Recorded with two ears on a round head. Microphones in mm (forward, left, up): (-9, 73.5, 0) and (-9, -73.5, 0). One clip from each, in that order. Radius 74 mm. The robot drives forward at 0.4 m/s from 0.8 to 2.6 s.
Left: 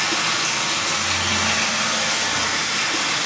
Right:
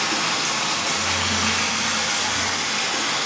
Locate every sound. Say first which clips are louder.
0.0 s running water: left 1 dB; centre (ahead or behind), 2 m